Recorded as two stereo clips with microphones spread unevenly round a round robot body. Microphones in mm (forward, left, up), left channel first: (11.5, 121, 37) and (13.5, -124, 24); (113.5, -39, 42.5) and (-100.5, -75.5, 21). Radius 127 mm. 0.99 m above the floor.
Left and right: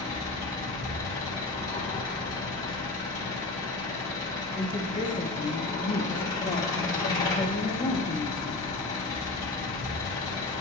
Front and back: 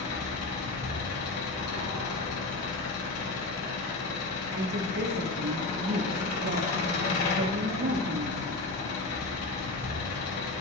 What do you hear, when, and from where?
0.0 s an engine running: 15° left, 1.8 m
4.6 s a woman speaking: 160° left, 0.6 m